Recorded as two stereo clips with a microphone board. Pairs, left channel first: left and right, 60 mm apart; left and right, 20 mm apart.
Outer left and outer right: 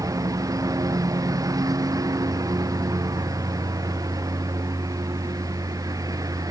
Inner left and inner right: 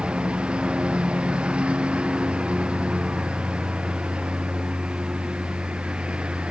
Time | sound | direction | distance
0.0 | a lawn mower | 75° right (ahead or behind) | ?